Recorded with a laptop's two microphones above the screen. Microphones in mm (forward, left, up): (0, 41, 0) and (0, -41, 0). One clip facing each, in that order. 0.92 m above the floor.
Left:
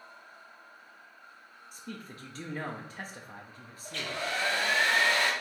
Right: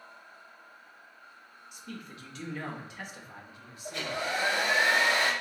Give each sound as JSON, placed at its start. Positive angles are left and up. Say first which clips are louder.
{"t": 1.7, "sound": "a man speaking", "louder": "even", "side_deg": 35, "distance_m": 0.8}
{"t": 3.9, "sound": "a hair dryer", "louder": "right 2 dB", "side_deg": -15, "distance_m": 0.6}